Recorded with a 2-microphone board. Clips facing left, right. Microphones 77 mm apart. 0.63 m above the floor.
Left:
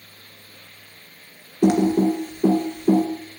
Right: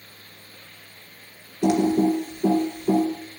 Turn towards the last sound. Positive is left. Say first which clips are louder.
# left 2 dB
turn(degrees=40)  # may be behind; listen again after turning